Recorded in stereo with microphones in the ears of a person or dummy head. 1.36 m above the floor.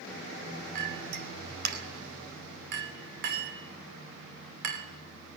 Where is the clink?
55° right (ahead or behind), 2 m.